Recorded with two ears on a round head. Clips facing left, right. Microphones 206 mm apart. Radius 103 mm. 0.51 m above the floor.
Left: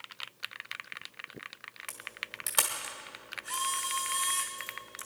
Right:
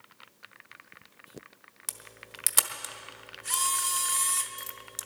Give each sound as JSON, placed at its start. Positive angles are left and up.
{"t": 1.9, "sound": "a camera shutter", "side_deg": -35, "distance_m": 1.0}